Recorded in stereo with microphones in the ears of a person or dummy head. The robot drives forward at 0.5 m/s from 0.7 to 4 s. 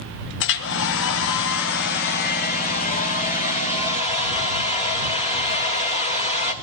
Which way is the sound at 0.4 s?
70° left (ahead or behind).